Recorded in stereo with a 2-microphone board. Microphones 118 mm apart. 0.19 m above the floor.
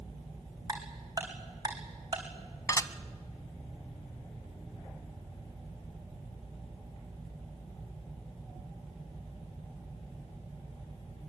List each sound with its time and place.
0.7 s ticking: 30° right (ahead or behind), 4 m
2.7 s dishes clattering: 30° left (ahead or behind), 0.8 m